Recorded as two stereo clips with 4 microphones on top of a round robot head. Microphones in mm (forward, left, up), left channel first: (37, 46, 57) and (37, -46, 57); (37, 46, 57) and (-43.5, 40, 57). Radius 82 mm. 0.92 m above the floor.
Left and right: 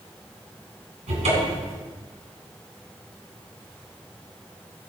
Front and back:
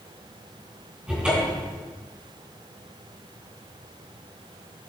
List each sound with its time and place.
1.1 s a cupboard door: 95° right, 3.5 m